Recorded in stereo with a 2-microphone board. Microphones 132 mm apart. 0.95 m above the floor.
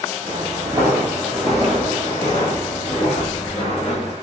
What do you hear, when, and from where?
0.2 s footsteps: 30° right (ahead or behind), 1.3 m; by 4.1 s 55° left (ahead or behind), 1.6 m